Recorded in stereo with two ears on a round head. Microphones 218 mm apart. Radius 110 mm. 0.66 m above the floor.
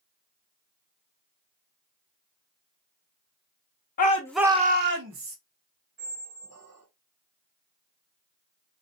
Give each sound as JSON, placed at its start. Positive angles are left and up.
{"t": 4.0, "sound": "a shout", "side_deg": 40, "distance_m": 0.7}
{"t": 6.0, "sound": "a squeak", "side_deg": -70, "distance_m": 1.3}